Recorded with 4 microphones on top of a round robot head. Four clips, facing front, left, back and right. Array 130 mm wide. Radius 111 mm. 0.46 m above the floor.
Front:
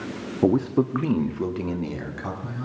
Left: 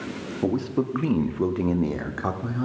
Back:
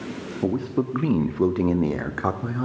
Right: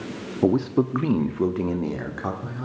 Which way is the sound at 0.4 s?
40° right.